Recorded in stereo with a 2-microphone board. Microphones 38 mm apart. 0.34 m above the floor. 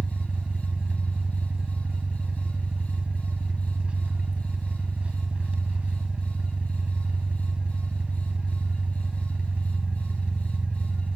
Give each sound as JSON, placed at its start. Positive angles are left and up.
{"t": 0.0, "sound": "an engine running", "side_deg": -35, "distance_m": 1.2}